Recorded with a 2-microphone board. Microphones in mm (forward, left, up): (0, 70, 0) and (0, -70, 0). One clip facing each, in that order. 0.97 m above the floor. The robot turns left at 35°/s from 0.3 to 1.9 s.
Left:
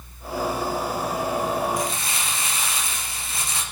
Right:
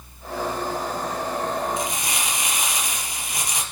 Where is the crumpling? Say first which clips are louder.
Even; 25° right (ahead or behind), 4.5 m; by 3.6 s 20° right (ahead or behind), 4.5 m.